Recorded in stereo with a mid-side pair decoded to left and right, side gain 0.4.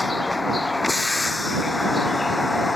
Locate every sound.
0.0 s a vehicle: 20° left